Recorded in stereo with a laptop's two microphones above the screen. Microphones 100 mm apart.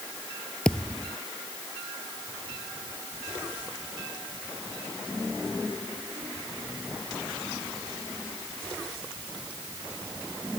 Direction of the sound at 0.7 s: 5° left (ahead or behind).